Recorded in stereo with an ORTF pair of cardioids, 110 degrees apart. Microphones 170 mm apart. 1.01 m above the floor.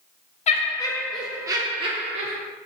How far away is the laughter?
About 0.7 m.